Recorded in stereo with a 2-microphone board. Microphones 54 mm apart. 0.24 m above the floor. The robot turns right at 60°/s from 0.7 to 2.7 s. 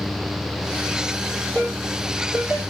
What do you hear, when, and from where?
1.6 s a ringtone: 40° left (ahead or behind), 5.5 m; by 2.6 s 20° right (ahead or behind), 5.5 m